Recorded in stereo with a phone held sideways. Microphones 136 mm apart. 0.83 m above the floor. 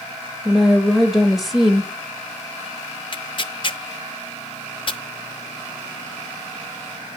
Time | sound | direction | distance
0.5 | a woman speaking | centre (ahead or behind) | 0.7 m
3.1 | tearing paper | 40° left (ahead or behind) | 0.5 m